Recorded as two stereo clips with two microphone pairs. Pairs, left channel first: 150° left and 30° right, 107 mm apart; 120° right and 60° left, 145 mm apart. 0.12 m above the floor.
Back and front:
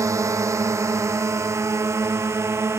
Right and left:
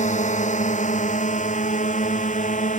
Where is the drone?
90° right; by 2.8 s 95° right.